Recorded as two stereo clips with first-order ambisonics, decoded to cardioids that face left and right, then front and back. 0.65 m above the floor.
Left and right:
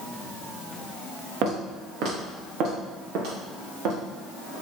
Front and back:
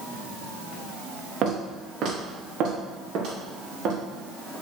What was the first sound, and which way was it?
Footsteps, 120° right.